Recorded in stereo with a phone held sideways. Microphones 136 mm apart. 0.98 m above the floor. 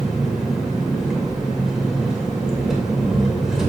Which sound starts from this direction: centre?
An engine running, at 0.0 s.